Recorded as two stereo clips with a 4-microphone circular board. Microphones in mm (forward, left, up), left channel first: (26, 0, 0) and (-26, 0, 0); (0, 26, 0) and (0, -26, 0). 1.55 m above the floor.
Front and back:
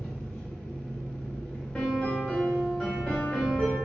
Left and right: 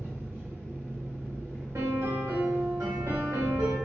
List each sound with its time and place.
0.0 s an engine running: 80° right, 1.8 m
1.8 s a piano: 85° right, 1.7 m